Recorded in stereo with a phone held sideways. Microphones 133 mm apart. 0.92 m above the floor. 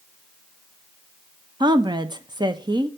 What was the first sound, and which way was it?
A woman speaking, 35° right (ahead or behind).